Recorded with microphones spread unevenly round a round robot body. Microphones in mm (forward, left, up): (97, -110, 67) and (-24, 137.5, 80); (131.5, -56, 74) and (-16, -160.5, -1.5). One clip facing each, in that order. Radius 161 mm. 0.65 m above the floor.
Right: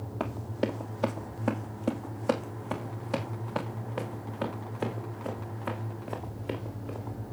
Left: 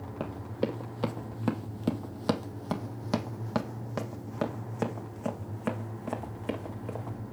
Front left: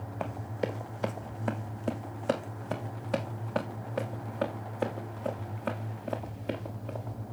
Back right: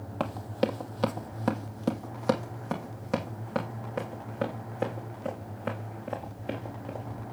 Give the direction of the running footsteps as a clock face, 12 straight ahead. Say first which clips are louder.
Right 1 dB, back right 5 dB; 5 o'clock.